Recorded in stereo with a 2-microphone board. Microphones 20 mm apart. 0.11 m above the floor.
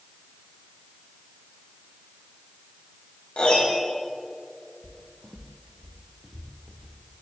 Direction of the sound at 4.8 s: 35° left (ahead or behind).